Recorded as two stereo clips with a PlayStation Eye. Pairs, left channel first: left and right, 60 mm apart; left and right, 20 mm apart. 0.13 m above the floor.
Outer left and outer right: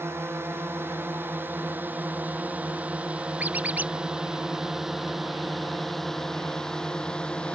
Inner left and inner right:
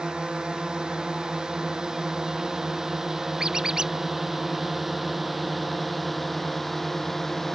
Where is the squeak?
25° right (ahead or behind).